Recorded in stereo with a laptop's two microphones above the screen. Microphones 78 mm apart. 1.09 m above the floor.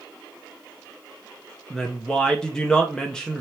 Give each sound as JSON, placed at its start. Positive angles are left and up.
{"t": 1.7, "sound": "a woman speaking", "side_deg": 10, "distance_m": 0.8}